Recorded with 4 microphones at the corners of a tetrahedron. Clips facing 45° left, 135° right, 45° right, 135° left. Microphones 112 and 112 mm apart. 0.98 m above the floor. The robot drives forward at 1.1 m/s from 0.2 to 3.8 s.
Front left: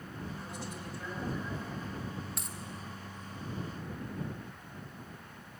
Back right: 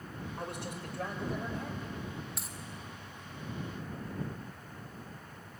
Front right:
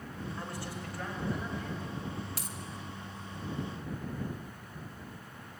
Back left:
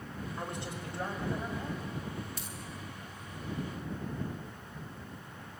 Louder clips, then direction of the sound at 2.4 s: Front left 1 dB, front right 1 dB; 45° right.